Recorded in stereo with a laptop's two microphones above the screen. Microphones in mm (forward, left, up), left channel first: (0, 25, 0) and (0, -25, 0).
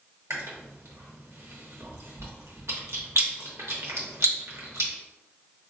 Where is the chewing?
70° right (ahead or behind), 0.6 m.